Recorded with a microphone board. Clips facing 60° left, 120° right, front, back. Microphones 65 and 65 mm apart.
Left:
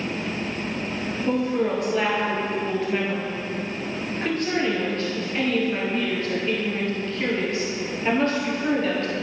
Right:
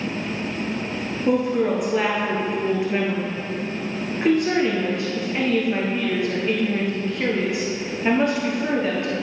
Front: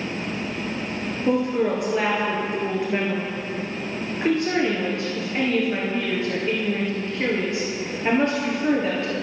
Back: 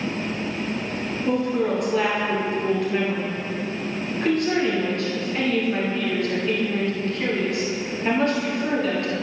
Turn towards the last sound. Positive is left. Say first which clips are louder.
# right 3 dB, front 1 dB
turn(degrees=-55)